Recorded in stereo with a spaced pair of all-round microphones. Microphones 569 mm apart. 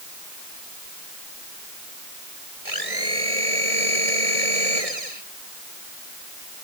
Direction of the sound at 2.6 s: 80° right.